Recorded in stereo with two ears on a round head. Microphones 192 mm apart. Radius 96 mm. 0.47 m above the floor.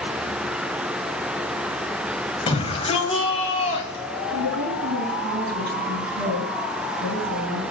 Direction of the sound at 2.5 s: 25° left (ahead or behind).